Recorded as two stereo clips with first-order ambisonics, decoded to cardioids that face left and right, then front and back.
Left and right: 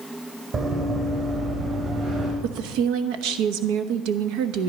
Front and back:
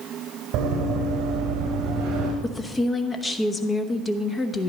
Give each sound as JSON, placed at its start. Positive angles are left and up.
{"t": 0.5, "sound": "running footsteps", "azimuth_deg": -145, "distance_m": 2.0}
{"t": 2.4, "sound": "a woman speaking", "azimuth_deg": -75, "distance_m": 0.9}